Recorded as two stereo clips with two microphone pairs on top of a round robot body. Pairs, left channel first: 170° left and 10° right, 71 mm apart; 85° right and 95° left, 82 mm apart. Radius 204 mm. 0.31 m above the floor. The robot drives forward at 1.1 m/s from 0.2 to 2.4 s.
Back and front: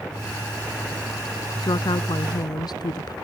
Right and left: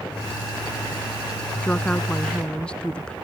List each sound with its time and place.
1.6 s a woman speaking: 160° right